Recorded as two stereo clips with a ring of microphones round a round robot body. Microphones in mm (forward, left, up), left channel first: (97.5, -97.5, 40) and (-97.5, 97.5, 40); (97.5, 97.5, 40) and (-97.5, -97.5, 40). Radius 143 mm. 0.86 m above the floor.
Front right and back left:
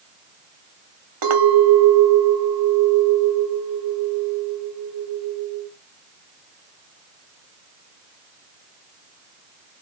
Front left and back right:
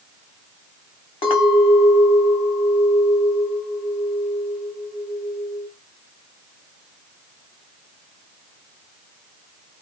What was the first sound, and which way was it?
A clink, 120° left.